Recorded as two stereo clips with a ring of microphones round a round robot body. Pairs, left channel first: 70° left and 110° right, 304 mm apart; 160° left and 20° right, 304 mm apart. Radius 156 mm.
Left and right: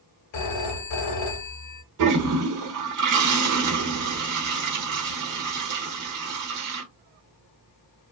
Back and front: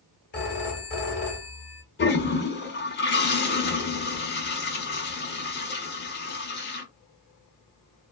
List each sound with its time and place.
0.3 s a phone ringing: 100° left, 0.9 m
2.0 s a toilet flushing: 145° right, 0.9 m